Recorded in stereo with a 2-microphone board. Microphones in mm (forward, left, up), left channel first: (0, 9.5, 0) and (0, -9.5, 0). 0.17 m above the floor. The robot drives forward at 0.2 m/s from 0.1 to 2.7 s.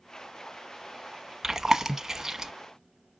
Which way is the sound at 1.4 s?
30° right (ahead or behind).